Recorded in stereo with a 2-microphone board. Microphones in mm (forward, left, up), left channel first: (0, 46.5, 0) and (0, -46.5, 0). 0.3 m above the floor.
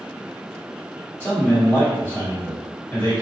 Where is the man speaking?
20° left (ahead or behind), 1.8 m.